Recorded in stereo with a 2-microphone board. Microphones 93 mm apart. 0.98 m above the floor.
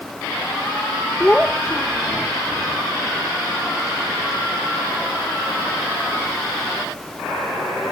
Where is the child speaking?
15° left (ahead or behind).